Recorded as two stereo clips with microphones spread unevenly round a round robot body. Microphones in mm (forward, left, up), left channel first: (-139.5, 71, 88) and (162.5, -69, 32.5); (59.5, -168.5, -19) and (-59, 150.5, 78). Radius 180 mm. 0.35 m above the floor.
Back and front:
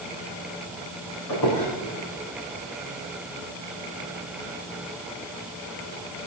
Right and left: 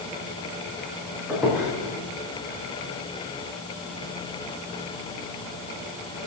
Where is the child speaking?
No child speaking in this recording.